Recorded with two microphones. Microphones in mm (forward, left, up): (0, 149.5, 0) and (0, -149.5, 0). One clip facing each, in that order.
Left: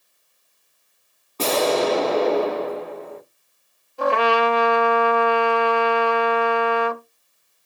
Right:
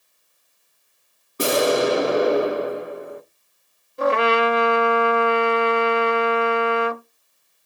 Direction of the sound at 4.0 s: 20° right (ahead or behind).